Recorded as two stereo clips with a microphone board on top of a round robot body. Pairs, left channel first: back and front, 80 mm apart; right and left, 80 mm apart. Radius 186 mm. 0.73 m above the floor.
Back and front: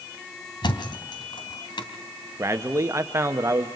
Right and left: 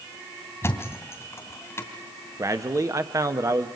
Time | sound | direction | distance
0.6 | a thud | 150° right | 2.5 m
2.4 | a man speaking | 50° left | 1.4 m